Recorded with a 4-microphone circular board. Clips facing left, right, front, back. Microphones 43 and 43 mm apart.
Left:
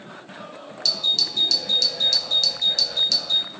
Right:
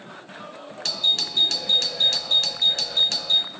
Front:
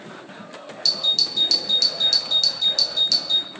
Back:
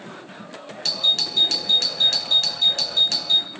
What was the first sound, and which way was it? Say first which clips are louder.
A doorbell: even, back 1 dB; 135° right.